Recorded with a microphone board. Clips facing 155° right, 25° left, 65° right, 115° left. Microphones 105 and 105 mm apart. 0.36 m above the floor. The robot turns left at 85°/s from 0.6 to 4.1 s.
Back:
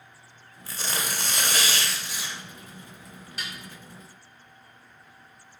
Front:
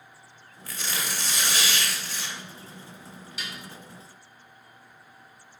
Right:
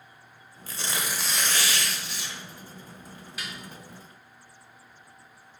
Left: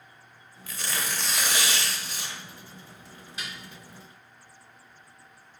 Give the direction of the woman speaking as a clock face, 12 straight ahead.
No woman speaking in this recording.